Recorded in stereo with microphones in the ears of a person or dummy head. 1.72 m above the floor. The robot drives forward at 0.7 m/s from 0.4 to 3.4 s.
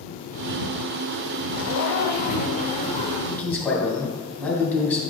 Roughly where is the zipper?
Left.